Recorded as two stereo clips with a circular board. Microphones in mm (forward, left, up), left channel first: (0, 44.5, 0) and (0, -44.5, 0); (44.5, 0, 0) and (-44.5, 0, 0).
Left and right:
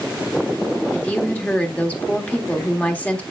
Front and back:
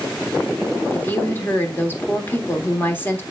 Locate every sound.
0.9 s a woman speaking: 35° left, 1.4 m